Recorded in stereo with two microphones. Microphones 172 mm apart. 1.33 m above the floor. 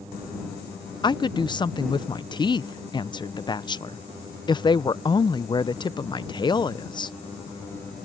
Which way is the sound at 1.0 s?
25° left (ahead or behind).